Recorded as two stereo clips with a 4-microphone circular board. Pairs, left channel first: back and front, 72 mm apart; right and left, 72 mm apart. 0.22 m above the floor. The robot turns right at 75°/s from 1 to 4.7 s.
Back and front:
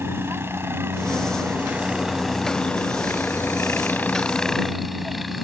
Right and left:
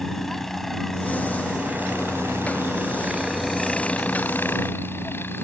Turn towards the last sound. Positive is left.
turn(degrees=-90)